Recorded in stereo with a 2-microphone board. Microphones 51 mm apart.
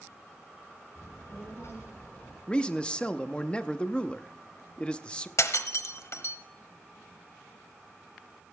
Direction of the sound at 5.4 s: 75° left (ahead or behind).